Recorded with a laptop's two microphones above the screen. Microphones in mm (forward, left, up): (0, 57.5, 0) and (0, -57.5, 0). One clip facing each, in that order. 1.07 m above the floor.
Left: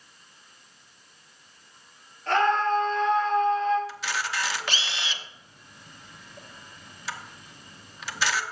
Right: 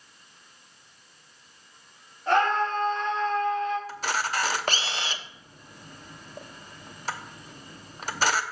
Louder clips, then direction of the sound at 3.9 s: Right 3 dB; 45° right (ahead or behind).